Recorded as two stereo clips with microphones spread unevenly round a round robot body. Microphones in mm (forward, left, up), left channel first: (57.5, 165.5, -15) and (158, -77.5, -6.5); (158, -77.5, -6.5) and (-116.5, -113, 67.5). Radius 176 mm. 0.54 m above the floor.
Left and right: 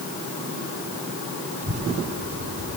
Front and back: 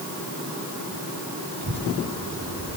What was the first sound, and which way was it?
A child speaking, 135° right.